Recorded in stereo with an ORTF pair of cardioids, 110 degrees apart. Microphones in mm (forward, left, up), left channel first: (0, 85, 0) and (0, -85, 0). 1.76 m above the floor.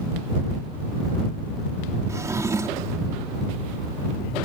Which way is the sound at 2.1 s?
20° right.